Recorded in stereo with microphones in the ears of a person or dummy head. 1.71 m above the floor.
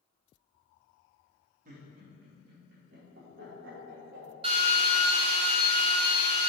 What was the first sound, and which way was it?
Laughter, 45° right (ahead or behind).